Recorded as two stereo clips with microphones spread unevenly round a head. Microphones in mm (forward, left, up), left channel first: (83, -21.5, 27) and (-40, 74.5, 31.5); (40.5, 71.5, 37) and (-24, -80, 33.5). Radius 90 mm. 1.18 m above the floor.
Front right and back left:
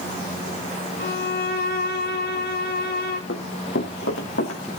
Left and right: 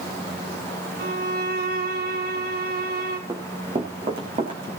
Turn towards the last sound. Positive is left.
turn(degrees=-55)